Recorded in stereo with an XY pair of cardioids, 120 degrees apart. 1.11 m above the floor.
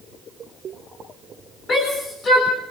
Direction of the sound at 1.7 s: 40° left.